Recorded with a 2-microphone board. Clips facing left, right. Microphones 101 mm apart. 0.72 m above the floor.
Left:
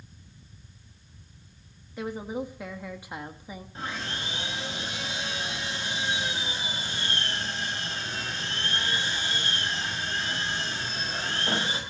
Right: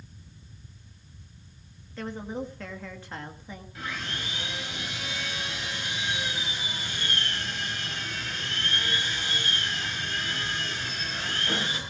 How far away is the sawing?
About 4.5 m.